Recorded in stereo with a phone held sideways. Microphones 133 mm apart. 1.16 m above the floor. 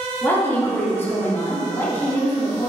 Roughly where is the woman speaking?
Centre.